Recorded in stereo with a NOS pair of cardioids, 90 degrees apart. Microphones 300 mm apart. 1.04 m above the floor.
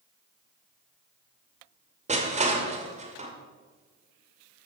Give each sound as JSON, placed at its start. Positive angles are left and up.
{"t": 2.1, "sound": "crushing", "azimuth_deg": -20, "distance_m": 2.0}